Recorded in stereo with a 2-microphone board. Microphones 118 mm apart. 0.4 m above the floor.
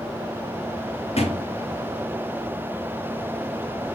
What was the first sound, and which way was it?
A thud, 65° left (ahead or behind).